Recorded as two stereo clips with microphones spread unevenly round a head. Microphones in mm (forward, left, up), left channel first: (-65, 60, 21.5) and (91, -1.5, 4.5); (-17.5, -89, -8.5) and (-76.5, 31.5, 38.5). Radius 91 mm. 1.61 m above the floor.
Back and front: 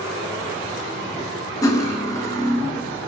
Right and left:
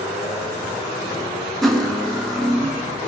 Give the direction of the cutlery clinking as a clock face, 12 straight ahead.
7 o'clock.